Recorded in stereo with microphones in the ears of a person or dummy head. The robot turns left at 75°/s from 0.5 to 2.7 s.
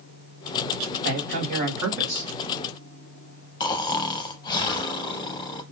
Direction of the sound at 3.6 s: 25° left (ahead or behind).